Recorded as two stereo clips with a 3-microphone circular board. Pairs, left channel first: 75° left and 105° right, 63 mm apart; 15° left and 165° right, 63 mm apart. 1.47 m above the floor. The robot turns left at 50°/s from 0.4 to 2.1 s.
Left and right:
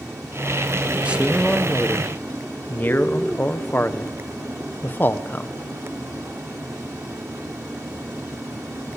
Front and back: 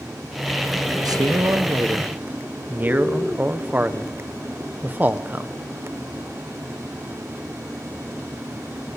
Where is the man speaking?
175° right, 0.9 m; by 5.5 s 135° left, 0.9 m.